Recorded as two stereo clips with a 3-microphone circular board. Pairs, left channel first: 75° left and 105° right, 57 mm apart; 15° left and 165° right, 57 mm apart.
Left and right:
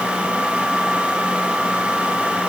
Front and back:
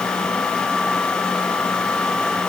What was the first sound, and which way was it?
Only background noise.